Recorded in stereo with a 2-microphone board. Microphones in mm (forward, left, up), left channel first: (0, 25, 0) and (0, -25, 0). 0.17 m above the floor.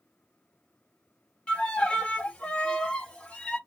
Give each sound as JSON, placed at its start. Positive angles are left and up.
{"t": 1.5, "sound": "a violin", "side_deg": 20, "distance_m": 0.7}